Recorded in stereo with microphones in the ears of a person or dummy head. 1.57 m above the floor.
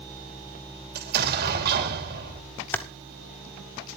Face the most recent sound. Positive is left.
turn(degrees=10)  # may be behind; listen again after turning